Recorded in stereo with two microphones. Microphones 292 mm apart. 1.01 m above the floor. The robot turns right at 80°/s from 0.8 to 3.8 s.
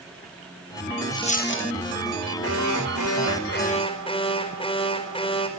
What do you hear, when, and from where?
1.1 s a dropped coin: 10° left, 0.7 m; by 1.7 s 60° left, 0.7 m
2.4 s an alarm: 50° left, 4.5 m; by 5.5 s 160° left, 4.5 m